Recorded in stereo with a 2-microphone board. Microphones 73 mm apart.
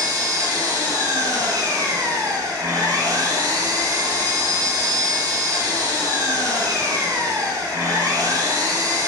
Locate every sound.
0.0 s an engine running: 50° right (ahead or behind), 5 m